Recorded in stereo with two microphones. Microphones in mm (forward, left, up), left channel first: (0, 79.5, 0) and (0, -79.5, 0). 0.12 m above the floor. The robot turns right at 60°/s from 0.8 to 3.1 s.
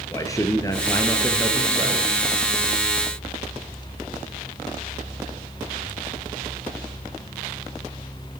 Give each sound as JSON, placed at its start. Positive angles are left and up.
{"t": 0.1, "sound": "a man speaking", "azimuth_deg": 155, "distance_m": 2.5}